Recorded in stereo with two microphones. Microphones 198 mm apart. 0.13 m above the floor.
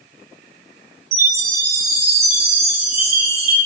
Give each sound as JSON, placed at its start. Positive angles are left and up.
{"t": 1.1, "sound": "a chime", "side_deg": -35, "distance_m": 1.2}